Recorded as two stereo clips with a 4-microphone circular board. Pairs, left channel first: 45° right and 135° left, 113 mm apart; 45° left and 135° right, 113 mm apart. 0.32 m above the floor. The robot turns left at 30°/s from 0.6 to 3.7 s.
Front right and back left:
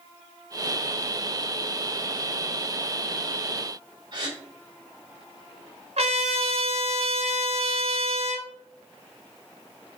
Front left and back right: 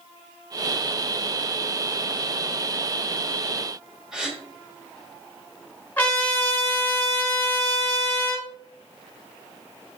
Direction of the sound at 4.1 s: 145° left.